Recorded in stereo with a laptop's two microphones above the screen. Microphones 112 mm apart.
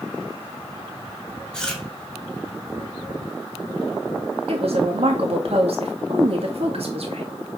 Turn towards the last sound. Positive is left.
turn(degrees=-65)  # may be behind; listen again after turning